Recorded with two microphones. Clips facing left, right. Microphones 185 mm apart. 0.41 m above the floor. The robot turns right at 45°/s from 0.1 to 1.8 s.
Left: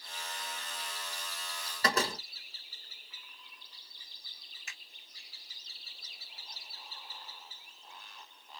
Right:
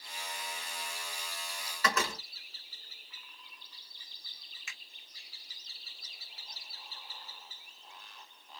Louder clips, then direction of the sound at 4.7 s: Even; 40° left (ahead or behind).